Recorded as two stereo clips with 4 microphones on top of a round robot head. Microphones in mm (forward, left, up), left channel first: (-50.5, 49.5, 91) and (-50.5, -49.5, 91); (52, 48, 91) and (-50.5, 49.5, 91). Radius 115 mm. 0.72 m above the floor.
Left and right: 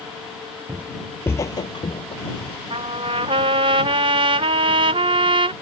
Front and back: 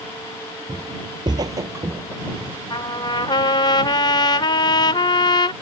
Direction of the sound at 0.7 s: 150° right.